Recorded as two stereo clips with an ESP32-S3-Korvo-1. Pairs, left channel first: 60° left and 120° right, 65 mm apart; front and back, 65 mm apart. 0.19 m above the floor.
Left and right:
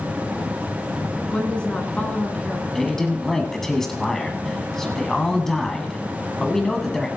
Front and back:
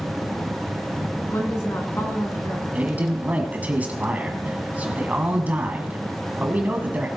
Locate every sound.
1.3 s a woman speaking: 5° right, 2 m
2.7 s a man speaking: 140° left, 1.3 m